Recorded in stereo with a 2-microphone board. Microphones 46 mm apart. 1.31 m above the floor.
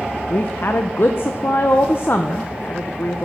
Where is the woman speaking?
50° left (ahead or behind), 0.7 m.